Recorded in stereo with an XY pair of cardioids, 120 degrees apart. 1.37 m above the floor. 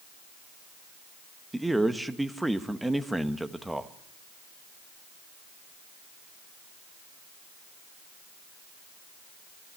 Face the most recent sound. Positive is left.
turn(degrees=-5)